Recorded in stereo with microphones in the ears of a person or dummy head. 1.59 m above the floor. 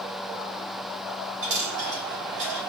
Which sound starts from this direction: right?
A dropped coin, at 1.4 s.